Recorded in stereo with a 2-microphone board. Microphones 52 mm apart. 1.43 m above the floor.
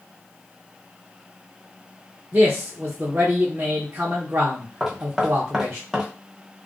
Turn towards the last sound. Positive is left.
turn(degrees=-10)  # may be behind; listen again after turning